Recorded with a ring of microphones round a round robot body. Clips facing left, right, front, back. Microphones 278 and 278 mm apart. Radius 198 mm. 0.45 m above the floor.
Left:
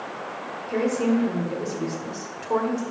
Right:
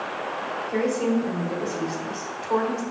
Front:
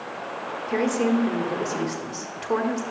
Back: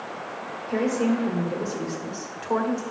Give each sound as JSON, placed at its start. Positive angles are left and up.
{"t": 0.7, "sound": "a woman speaking", "azimuth_deg": 35, "distance_m": 1.4}